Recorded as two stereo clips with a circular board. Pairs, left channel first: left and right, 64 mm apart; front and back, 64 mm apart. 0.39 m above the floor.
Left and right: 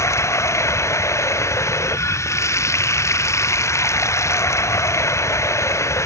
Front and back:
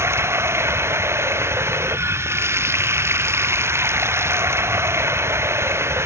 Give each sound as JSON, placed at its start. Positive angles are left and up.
{"t": 0.0, "sound": "running water", "azimuth_deg": 130}